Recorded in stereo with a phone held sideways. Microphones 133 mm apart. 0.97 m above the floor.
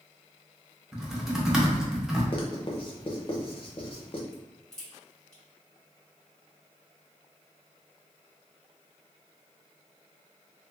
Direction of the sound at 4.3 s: 5° left (ahead or behind).